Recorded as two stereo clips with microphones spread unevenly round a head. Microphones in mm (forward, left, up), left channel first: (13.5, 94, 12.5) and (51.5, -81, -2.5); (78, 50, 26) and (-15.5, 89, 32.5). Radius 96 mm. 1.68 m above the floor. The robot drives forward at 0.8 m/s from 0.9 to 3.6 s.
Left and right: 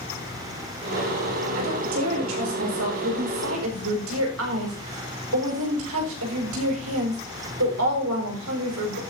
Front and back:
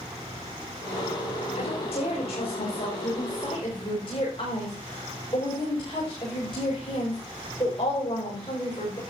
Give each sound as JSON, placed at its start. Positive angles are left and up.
{"t": 1.6, "sound": "a woman speaking", "azimuth_deg": -75, "distance_m": 7.5}